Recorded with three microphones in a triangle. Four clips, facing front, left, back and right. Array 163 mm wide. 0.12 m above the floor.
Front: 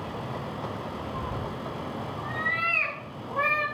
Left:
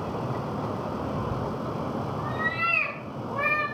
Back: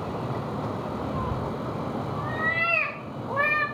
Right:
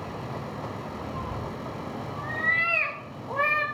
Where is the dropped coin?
No dropped coin in this recording.